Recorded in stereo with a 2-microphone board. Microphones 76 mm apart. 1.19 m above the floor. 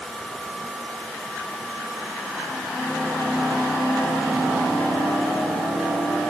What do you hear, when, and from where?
Only background noise.